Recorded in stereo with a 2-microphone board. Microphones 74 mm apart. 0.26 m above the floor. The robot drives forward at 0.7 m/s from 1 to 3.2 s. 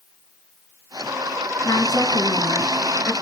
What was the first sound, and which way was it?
A woman speaking, 55° left (ahead or behind).